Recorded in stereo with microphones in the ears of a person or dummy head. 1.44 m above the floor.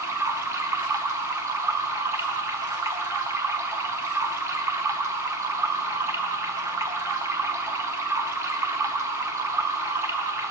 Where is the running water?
10° right (ahead or behind), 0.7 m.